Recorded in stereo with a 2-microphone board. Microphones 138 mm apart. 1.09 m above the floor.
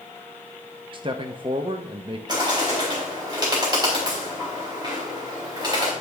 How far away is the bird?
About 4 m.